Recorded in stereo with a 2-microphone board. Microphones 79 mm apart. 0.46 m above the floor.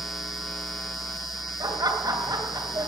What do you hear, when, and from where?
1.6 s laughter: 55° right (ahead or behind), 2.5 m